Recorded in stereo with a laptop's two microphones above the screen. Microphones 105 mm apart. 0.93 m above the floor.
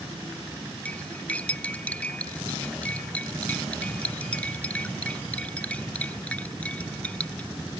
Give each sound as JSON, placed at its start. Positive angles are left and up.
{"t": 0.8, "sound": "cutlery clinking", "side_deg": 10}